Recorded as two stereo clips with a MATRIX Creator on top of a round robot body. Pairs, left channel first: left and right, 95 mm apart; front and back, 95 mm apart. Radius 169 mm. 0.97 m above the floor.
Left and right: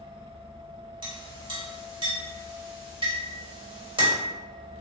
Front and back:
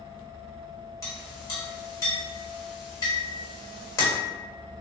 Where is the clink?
55° right, 1.6 m.